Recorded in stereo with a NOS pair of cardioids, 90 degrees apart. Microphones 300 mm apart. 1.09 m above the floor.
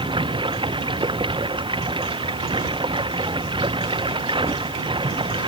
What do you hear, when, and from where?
0.0 s running water: 15° right